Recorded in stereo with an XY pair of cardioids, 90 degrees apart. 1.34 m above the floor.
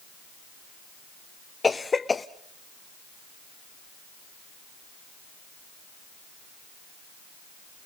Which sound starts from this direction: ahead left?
A cough, at 1.6 s.